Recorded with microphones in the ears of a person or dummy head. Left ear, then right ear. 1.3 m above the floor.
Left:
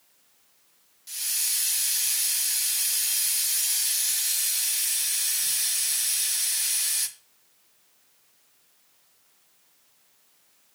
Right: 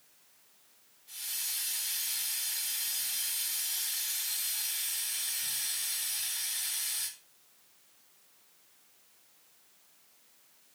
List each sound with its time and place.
1.1 s a hiss: 70° left (ahead or behind), 2 m